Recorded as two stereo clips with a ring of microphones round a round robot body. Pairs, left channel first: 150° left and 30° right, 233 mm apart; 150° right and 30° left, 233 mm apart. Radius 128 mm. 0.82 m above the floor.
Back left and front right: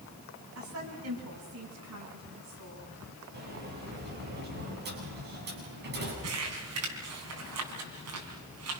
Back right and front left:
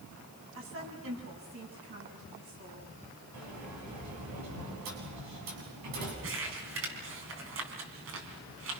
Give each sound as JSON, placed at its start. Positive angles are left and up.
{"t": 0.6, "sound": "a woman speaking", "azimuth_deg": -5, "distance_m": 8.5}
{"t": 3.3, "sound": "a sliding door", "azimuth_deg": 20, "distance_m": 8.0}
{"t": 6.2, "sound": "crumpling", "azimuth_deg": -5, "distance_m": 4.5}